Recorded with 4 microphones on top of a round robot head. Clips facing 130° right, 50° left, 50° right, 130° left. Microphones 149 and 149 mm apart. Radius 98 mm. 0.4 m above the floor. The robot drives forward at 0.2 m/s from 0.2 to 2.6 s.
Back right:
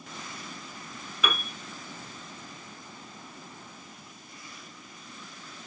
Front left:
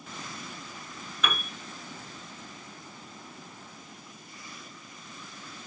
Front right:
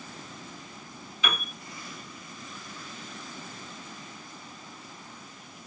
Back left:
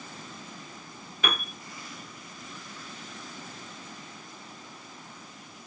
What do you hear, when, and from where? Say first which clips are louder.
1.2 s a piano: back right 1 dB, back left 2 dB; 150° left, 1.4 m